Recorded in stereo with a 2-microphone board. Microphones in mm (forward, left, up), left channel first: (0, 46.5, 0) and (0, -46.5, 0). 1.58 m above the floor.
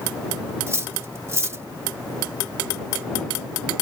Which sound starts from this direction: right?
Cutlery clinking, at 0.7 s.